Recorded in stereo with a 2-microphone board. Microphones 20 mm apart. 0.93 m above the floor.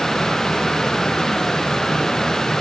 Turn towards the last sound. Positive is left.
No sound to turn to.